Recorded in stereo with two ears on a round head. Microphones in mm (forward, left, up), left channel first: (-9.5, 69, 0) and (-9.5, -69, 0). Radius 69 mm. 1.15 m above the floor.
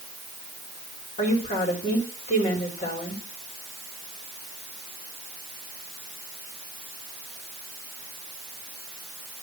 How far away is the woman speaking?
About 3.5 m.